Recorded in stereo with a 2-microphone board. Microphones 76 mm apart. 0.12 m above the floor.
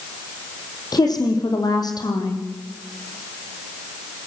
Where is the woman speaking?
60° left (ahead or behind), 5 m.